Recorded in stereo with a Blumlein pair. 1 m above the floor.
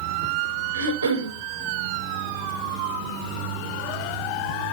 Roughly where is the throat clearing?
Ahead right.